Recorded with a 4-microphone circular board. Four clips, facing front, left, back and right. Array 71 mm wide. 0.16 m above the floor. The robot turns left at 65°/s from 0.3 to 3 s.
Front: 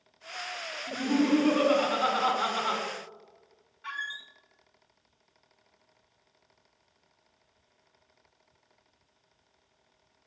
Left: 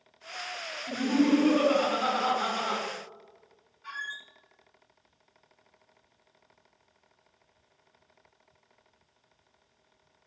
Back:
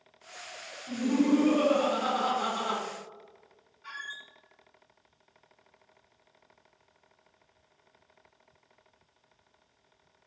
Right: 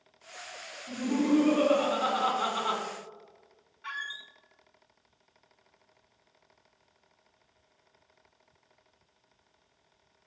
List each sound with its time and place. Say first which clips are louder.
0.9 s laughter: left 3 dB, even; 70° left, 1.2 m; by 2.8 s 55° right, 1.2 m
3.8 s a squeak: even, front 5 dB; 50° right, 0.5 m